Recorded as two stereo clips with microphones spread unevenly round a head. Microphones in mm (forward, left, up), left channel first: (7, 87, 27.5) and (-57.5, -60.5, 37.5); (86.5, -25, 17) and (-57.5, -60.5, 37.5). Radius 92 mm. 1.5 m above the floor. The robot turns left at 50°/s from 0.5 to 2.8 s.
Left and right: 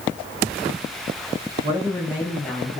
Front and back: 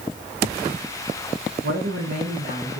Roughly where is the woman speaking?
Behind.